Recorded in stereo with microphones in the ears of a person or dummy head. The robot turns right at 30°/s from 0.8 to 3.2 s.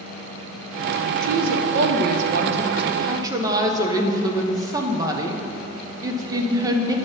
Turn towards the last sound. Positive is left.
turn(degrees=-15)